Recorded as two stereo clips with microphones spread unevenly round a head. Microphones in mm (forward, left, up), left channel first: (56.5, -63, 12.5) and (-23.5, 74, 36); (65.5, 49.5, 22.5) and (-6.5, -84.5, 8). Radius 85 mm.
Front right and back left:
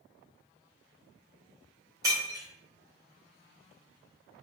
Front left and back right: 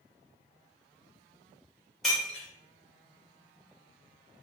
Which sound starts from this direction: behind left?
Breaking glass, at 2.0 s.